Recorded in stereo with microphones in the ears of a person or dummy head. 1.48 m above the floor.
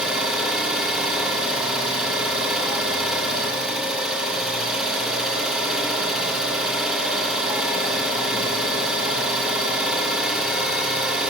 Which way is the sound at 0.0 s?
5° right (ahead or behind).